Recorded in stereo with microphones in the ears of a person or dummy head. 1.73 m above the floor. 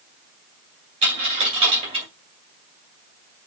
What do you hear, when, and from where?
1.0 s a dropped coin: 35° right (ahead or behind), 2.5 m